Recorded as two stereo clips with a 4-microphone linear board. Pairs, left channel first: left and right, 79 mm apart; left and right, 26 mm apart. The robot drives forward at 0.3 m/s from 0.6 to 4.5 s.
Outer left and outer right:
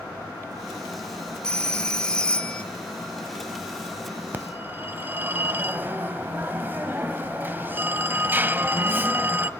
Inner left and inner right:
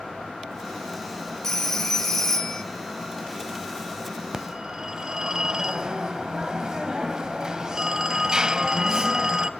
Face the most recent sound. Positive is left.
turn(degrees=-25)  # may be behind; listen again after turning